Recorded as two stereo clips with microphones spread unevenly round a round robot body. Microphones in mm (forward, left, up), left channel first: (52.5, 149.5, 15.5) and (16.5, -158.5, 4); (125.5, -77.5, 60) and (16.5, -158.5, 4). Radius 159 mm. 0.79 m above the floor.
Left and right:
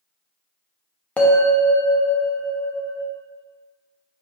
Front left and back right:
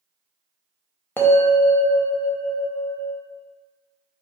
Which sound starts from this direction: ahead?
A bell, at 1.2 s.